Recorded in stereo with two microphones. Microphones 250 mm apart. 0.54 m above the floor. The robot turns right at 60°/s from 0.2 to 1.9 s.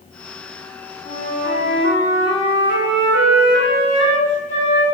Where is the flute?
95° right, 3.5 m; by 4.8 s 45° right, 3.5 m.